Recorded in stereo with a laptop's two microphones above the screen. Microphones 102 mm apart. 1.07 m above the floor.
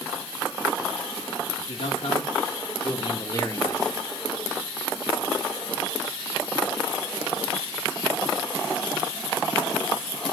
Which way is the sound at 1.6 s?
80° left.